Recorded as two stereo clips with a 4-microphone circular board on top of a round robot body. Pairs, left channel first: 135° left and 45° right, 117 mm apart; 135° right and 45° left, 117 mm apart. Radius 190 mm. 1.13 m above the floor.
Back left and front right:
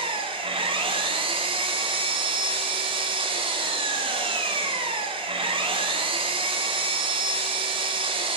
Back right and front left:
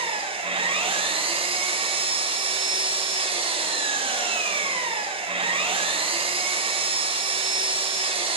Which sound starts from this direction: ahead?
An engine running, at 0.0 s.